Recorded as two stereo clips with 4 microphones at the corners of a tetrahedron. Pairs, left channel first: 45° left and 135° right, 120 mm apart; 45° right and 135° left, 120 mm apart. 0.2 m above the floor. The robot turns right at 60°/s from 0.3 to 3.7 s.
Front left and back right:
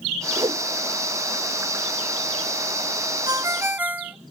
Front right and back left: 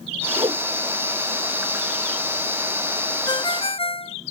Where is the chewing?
I don't hear chewing.